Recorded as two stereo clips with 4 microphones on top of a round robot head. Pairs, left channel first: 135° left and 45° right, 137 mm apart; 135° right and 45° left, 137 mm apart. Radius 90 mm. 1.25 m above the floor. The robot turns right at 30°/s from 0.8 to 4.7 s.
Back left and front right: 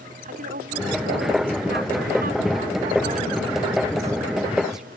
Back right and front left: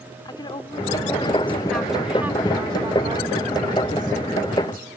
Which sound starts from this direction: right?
A woman speaking, at 0.2 s.